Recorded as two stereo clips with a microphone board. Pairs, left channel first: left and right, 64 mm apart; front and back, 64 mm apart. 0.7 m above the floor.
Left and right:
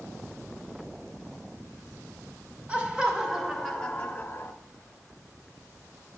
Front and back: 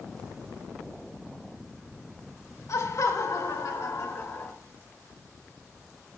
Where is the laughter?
20° right, 2 m; by 4.5 s 50° left, 1.2 m.